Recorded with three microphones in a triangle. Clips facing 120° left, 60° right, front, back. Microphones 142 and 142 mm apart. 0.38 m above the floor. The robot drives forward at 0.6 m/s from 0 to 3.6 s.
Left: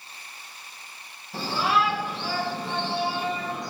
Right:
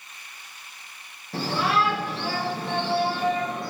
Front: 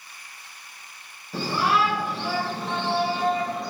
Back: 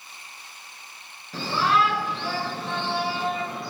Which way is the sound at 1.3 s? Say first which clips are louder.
Right 1 dB, even; 80° right.